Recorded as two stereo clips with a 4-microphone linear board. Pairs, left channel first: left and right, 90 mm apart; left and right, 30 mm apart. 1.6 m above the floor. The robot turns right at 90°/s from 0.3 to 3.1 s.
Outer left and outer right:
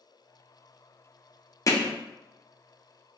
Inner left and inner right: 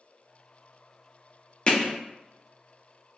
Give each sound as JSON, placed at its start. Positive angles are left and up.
{"t": 1.7, "sound": "hammering", "side_deg": 35, "distance_m": 0.5}